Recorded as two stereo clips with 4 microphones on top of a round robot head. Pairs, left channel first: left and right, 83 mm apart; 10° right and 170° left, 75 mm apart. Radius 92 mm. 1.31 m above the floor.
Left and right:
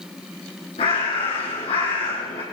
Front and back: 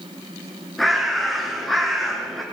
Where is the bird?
80° left, 3.5 m.